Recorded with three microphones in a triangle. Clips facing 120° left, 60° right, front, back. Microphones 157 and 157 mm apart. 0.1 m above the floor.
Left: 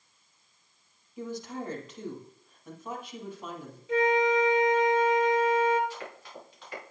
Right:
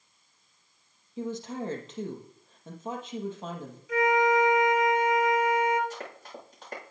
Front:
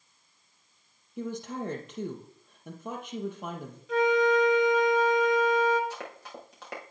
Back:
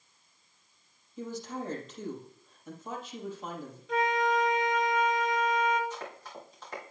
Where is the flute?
85° left, 2 m.